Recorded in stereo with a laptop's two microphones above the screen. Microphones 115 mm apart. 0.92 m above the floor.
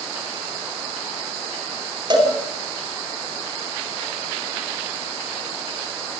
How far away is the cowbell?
About 4 m.